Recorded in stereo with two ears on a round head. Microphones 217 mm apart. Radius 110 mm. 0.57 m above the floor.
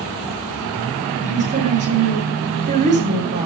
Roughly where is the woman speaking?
Right.